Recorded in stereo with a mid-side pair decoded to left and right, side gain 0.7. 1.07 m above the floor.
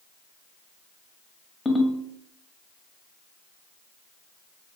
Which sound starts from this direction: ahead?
A ringtone, at 1.6 s.